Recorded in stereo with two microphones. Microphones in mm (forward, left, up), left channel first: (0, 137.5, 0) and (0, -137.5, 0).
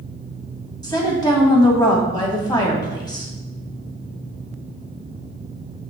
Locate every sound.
0.8 s a woman speaking: 15° left (ahead or behind), 2.5 m